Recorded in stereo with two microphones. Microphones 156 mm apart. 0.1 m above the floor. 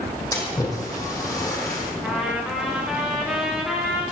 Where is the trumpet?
5° right (ahead or behind), 6.5 m.